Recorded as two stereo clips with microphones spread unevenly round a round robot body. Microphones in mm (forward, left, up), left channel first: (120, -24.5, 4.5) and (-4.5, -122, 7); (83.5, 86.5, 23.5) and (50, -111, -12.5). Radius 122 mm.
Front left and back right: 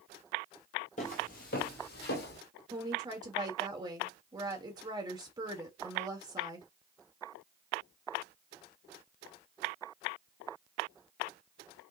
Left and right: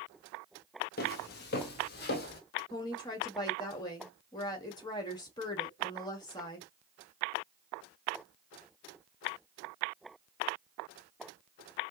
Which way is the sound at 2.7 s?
155° left.